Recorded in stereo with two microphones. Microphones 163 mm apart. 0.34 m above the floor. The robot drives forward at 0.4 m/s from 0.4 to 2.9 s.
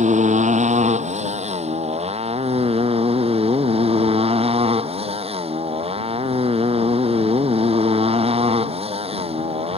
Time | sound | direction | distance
0.0 | a motorcycle | 50° right (ahead or behind) | ?